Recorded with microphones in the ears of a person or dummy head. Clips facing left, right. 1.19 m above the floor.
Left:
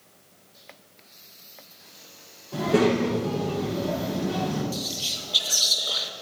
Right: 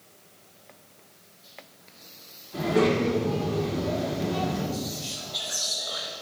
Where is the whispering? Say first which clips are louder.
Right 1 dB; 40° left (ahead or behind), 1.0 m.